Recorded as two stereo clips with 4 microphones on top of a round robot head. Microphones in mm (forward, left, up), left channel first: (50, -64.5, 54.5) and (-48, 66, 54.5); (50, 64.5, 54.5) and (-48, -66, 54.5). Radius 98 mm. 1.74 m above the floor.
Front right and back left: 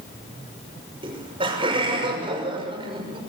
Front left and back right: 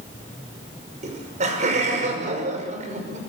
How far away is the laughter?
About 6 m.